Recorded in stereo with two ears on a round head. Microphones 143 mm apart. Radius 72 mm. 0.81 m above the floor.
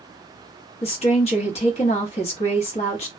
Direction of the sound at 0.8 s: 40° left (ahead or behind).